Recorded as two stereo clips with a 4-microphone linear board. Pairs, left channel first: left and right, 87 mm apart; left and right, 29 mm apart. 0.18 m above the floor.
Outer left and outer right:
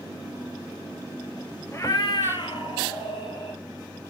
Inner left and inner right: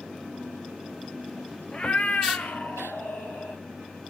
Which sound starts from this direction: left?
A cat meowing, at 1.7 s.